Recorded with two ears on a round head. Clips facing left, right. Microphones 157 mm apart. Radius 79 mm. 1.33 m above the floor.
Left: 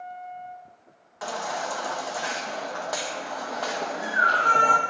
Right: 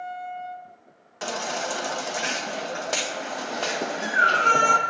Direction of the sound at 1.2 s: 30° right (ahead or behind).